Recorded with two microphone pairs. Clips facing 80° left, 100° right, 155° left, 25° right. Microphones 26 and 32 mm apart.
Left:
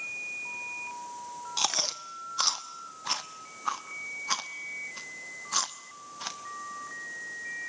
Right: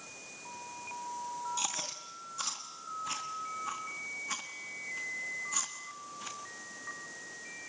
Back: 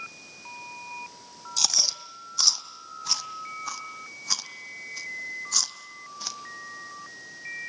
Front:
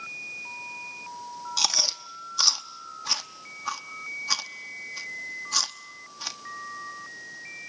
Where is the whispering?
No whispering in this recording.